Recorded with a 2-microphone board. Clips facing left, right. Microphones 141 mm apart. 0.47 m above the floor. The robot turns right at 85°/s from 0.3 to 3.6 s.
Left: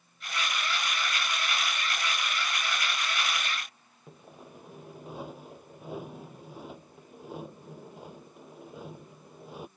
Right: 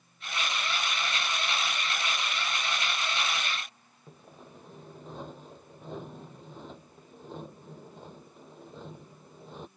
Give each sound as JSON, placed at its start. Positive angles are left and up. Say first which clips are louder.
{"t": 4.1, "sound": "sawing", "louder": "left 2 dB", "side_deg": 10}